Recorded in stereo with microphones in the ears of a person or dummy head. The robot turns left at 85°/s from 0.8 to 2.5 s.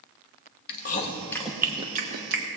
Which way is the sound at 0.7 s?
55° left (ahead or behind).